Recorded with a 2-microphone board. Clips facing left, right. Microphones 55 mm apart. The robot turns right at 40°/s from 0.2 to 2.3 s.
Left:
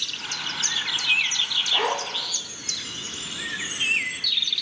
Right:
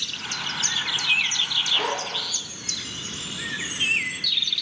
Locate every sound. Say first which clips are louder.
1.7 s a zipper: left 3 dB; 30° left (ahead or behind), 1.8 m; by 2.3 s 10° left (ahead or behind), 1.8 m